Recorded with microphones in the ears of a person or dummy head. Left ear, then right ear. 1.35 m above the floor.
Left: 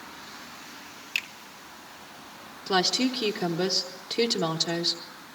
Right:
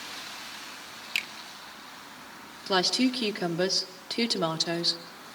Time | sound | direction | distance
1.1 | a finger snap | 20° right (ahead or behind) | 1.4 m
2.7 | a woman speaking | 20° right (ahead or behind) | 1.0 m